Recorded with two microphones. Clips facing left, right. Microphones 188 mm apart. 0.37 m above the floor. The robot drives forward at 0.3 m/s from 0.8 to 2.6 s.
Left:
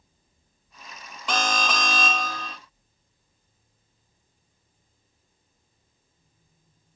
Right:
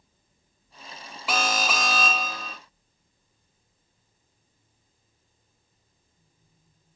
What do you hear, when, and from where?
1.3 s an alarm: 5° right (ahead or behind), 0.8 m